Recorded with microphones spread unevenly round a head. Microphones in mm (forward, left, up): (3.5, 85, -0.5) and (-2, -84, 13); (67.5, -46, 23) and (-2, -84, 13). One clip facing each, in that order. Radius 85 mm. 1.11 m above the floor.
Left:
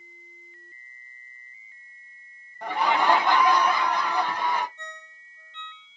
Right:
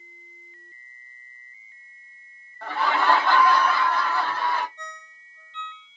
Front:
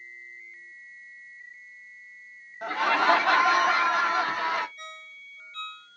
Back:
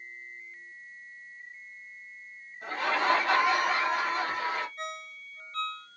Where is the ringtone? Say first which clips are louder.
Right 1 dB, back 5 dB; 110° right, 1.0 m.